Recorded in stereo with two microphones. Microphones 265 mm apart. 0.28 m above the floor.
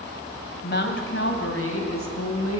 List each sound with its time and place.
0.6 s a woman speaking: 40° left (ahead or behind), 1.7 m; by 2.6 s 65° left (ahead or behind), 3 m